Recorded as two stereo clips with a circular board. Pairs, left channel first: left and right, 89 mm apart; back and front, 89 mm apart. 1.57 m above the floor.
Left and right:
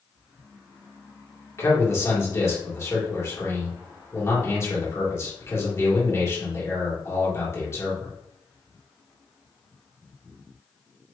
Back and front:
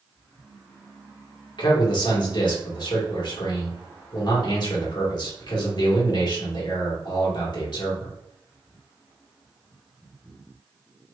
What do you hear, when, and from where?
1.6 s a man speaking: 145° left, 2 m